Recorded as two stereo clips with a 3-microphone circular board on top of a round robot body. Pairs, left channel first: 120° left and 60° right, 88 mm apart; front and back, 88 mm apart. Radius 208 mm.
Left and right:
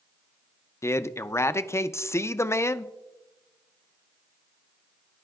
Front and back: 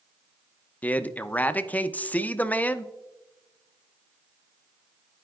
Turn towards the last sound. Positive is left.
turn(degrees=70)